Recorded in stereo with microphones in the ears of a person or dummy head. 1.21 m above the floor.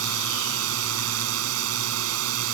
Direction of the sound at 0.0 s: 85° right.